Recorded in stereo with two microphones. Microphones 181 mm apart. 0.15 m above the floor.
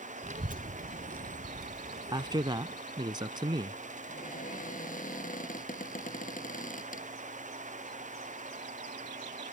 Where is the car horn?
I don't hear a car horn.